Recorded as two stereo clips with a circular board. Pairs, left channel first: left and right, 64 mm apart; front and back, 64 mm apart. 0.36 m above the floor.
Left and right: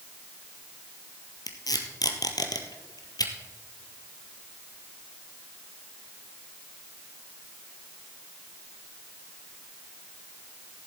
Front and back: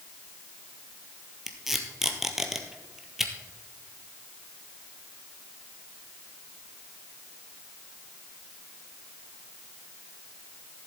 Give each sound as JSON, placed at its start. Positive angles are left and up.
{"t": 1.5, "sound": "tape being pulled", "azimuth_deg": 95, "distance_m": 1.6}